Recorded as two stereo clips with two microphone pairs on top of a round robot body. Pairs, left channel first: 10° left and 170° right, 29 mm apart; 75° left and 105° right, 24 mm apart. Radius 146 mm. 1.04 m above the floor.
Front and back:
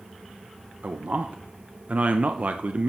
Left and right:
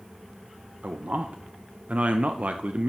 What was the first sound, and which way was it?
A man speaking, 130° right.